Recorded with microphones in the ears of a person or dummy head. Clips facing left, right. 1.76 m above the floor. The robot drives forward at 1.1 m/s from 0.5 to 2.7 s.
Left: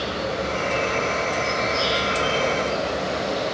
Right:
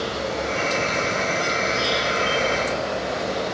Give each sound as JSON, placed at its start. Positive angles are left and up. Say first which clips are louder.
{"t": 0.0, "sound": "an insect", "louder": "even", "side_deg": -80, "distance_m": 1.2}